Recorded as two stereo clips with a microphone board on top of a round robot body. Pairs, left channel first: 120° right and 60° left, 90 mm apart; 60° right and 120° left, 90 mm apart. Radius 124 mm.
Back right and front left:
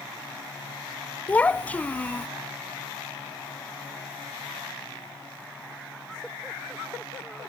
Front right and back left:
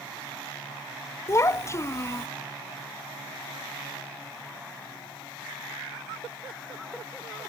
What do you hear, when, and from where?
1.3 s a child speaking: 60° right, 0.6 m